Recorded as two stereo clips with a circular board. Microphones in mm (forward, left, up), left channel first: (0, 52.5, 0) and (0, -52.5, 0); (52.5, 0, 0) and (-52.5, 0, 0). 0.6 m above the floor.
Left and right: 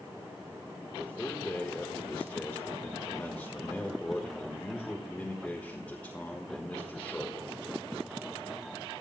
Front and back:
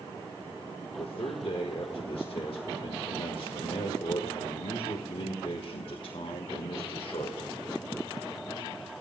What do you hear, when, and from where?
1.0 s a man speaking: 15° left, 1.4 m